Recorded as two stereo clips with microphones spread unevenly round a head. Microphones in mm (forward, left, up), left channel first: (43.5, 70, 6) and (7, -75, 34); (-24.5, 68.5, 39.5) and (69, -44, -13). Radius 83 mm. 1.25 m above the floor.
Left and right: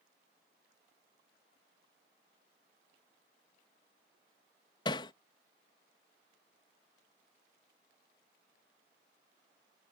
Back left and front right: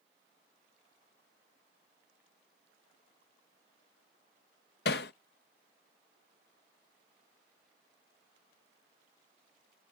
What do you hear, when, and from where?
4.8 s hammering: 140° left